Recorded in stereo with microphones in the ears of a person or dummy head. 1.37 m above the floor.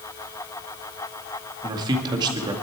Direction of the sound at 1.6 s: 25° right (ahead or behind).